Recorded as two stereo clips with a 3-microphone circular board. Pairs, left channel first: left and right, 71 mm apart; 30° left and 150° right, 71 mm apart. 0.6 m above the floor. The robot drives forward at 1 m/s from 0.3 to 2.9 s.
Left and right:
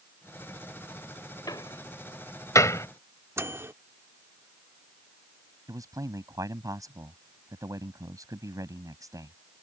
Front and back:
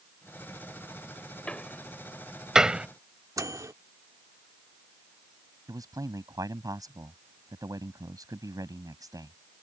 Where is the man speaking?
125° right.